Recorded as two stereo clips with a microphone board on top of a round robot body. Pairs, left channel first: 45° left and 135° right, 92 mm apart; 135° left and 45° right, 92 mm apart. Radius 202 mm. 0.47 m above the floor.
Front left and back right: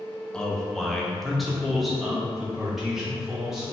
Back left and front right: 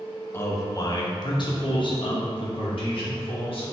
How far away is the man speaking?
About 0.8 m.